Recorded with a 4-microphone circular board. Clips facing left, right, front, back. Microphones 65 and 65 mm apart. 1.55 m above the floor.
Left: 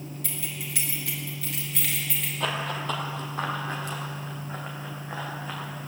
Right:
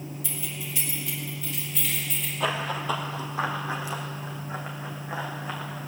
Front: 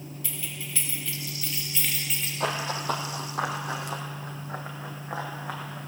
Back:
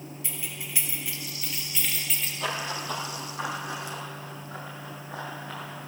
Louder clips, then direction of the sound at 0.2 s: Even, front 1 dB; 115° left.